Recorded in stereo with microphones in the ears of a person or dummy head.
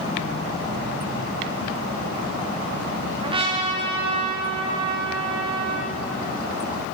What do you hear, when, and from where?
3.2 s a trumpet: 35° right (ahead or behind), 0.9 m